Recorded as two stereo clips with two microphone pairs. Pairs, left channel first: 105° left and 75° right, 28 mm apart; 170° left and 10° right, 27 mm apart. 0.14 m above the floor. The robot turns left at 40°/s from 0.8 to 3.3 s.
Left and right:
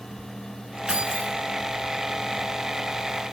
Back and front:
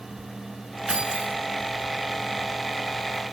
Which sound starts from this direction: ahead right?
Keys jangling, at 0.9 s.